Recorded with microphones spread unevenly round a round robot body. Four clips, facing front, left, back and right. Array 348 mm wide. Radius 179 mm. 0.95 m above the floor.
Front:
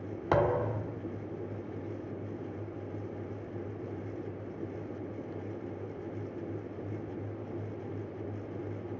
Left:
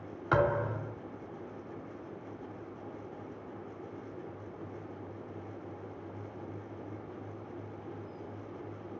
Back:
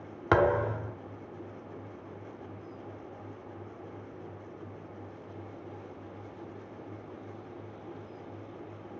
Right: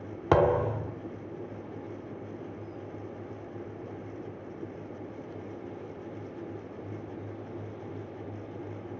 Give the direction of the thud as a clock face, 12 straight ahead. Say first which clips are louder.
Right 5 dB, back 3 dB; 4 o'clock.